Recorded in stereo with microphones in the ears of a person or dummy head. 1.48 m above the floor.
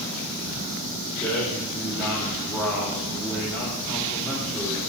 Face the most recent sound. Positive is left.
turn(degrees=10)  # may be behind; listen again after turning